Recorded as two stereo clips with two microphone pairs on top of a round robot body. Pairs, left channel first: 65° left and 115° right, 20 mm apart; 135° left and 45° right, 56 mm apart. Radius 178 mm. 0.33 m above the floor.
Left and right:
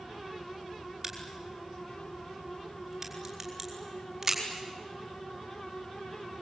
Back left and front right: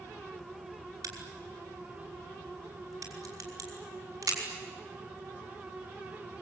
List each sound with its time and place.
1.0 s a crack: 40° right, 5.5 m